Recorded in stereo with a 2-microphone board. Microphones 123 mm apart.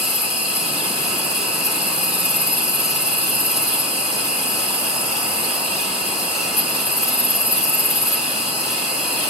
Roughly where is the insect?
Right.